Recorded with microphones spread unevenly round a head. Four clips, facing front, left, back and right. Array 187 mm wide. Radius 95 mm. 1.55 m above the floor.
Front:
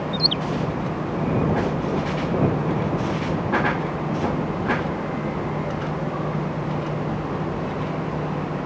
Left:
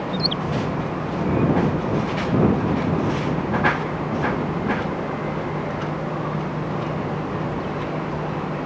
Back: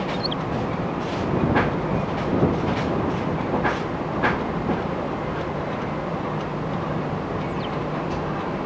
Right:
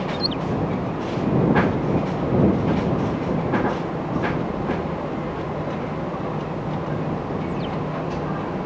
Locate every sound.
0.1 s a bird: 25° right